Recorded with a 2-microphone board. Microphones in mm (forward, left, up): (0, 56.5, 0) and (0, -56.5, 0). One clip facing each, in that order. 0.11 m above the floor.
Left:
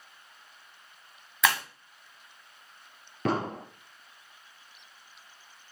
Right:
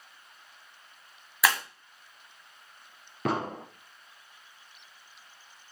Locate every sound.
1.4 s breaking glass: 5° right (ahead or behind), 1.8 m
3.2 s an explosion: 5° right (ahead or behind), 3 m